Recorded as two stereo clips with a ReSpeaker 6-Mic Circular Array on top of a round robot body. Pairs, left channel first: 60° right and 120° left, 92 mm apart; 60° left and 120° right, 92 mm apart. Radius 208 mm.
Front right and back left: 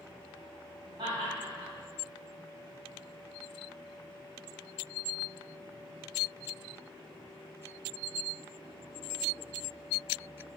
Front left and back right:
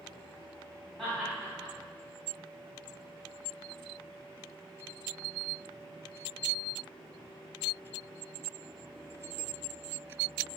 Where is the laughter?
140° left, 2.5 m.